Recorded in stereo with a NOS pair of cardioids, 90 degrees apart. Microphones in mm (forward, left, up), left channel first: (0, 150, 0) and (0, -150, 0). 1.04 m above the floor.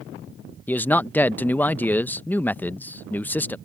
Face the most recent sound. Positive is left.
turn(degrees=5)